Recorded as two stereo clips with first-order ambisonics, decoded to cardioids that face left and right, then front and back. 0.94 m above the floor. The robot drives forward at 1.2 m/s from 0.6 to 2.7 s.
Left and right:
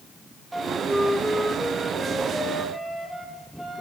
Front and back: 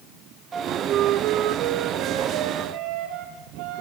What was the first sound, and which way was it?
A flute, 165° right.